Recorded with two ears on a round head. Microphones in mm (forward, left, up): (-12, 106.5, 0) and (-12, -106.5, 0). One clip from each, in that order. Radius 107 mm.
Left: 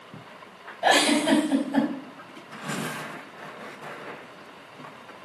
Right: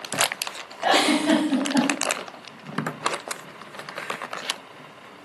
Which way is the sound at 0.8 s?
75° left (ahead or behind).